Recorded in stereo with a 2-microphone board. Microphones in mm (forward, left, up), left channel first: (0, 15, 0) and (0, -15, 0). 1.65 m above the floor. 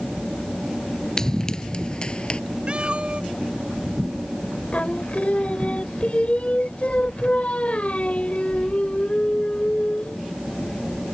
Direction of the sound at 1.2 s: 15° left (ahead or behind).